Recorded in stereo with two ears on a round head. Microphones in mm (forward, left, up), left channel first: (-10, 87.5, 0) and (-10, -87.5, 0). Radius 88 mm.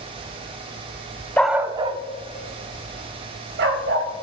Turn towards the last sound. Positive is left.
turn(degrees=-60)  # may be behind; listen again after turning